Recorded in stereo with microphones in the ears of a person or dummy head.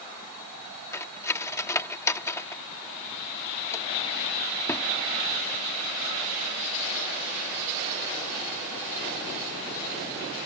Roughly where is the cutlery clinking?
Centre.